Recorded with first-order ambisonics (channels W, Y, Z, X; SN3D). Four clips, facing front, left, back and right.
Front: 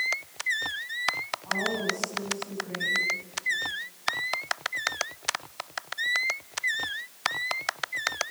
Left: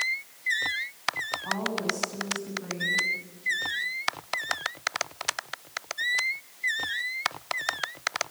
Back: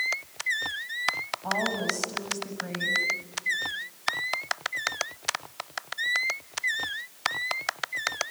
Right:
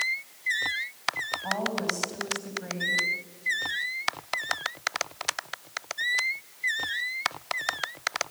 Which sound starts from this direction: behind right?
A woman speaking, at 1.4 s.